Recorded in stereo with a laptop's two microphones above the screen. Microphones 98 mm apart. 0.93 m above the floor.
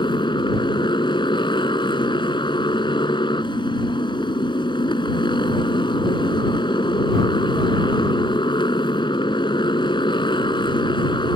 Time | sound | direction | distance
0.0 | a motorcycle | 55° left (ahead or behind) | ?